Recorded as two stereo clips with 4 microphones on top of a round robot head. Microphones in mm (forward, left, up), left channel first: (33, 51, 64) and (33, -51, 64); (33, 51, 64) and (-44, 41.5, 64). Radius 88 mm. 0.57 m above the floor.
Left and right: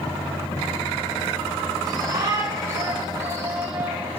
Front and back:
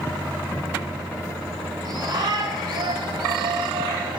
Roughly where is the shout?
Behind right.